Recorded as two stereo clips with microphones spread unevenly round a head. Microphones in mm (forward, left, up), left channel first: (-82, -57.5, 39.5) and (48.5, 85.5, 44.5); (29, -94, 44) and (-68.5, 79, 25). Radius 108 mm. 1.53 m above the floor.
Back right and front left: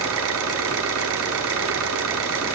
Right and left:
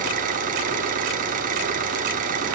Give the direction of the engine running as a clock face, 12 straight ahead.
10 o'clock.